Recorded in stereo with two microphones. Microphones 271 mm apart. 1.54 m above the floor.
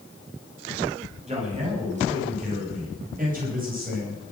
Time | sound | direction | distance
1.3 | a man speaking | 25° right (ahead or behind) | 10 m